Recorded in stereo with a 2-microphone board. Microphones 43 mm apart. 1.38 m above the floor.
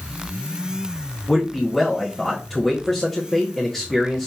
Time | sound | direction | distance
1.3 | a man speaking | 5° left (ahead or behind) | 0.8 m